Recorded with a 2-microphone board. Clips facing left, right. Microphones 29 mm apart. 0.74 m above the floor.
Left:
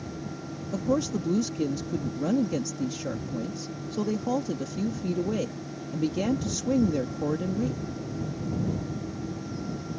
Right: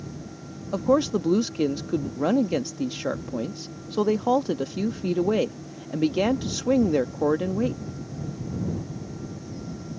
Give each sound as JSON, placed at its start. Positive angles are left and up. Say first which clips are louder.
{"t": 0.7, "sound": "a woman speaking", "louder": "right 6 dB", "side_deg": -40}